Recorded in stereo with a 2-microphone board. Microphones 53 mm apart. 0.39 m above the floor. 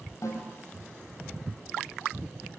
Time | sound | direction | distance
0.2 | a snare drum | 75° left (ahead or behind) | 7.5 m